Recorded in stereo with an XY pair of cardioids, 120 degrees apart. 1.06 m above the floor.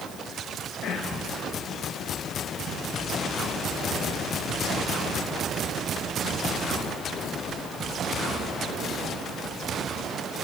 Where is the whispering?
65° left, 1.1 m.